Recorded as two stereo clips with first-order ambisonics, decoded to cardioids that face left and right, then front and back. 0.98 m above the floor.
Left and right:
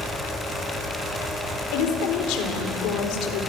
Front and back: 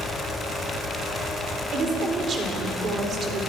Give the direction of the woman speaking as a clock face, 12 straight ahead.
8 o'clock.